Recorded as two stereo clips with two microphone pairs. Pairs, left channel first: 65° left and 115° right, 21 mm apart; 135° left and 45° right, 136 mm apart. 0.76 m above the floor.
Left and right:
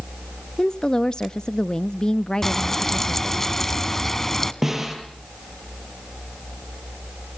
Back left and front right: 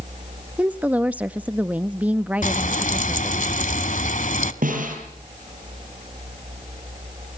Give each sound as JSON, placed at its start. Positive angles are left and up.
{"t": 0.6, "sound": "a woman speaking", "azimuth_deg": 35, "distance_m": 0.6}
{"t": 2.4, "sound": "frying", "azimuth_deg": 135, "distance_m": 1.3}
{"t": 4.6, "sound": "a snare drum", "azimuth_deg": -40, "distance_m": 8.5}